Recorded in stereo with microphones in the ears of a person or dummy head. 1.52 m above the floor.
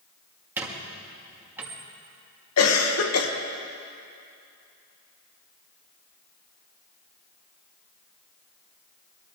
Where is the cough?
85° left, 1.9 m.